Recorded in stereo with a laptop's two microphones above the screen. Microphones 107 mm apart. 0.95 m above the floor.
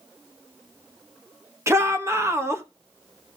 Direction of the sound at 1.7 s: 25° right (ahead or behind).